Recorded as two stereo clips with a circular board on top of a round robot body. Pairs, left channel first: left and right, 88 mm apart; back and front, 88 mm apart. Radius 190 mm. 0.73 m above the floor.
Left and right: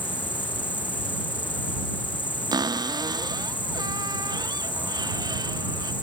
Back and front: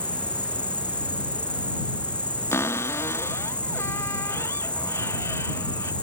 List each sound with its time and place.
0.0 s an insect: 105° left
2.5 s a cupboard door: 125° right